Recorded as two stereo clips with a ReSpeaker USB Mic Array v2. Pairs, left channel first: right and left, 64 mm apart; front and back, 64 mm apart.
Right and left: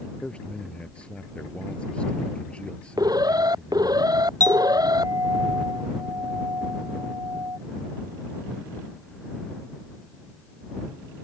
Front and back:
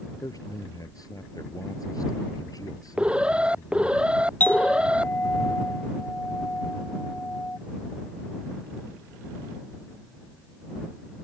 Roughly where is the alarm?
Left.